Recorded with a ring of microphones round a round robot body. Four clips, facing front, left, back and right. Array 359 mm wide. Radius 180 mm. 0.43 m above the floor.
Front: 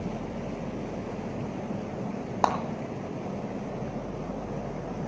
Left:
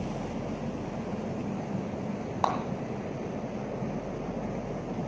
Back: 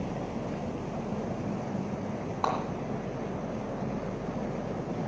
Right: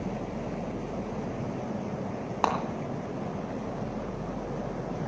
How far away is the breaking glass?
About 2 m.